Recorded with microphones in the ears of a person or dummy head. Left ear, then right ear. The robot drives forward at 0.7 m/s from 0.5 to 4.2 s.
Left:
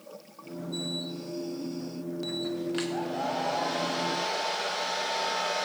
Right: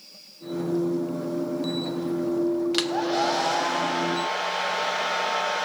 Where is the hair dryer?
45° right (ahead or behind), 0.6 m; by 5.7 s 30° right (ahead or behind), 0.8 m.